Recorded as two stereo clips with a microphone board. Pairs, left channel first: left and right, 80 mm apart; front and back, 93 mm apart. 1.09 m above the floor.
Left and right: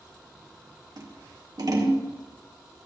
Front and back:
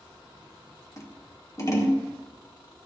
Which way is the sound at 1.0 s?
55° right.